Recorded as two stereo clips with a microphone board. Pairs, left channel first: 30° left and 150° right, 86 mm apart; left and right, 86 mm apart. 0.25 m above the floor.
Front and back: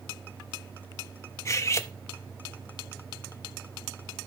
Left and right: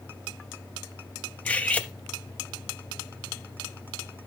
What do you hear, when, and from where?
1.4 s cutlery clinking: 30° left, 0.7 m